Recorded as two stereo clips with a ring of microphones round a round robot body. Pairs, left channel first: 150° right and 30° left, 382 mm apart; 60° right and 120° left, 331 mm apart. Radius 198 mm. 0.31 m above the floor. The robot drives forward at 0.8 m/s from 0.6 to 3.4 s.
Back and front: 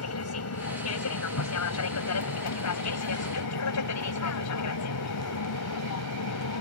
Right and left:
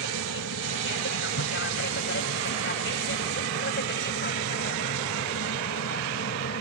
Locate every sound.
0.0 s an aircraft: 110° right; by 6.6 s 115° right